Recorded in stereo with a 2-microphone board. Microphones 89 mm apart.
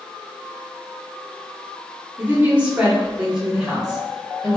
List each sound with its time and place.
2.2 s a woman speaking: 20° right (ahead or behind), 1.1 m; by 4.6 s centre (ahead or behind), 1.8 m